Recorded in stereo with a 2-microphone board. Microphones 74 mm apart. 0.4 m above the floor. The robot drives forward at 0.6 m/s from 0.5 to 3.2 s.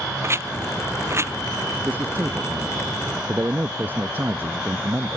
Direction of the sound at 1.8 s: 25° right (ahead or behind).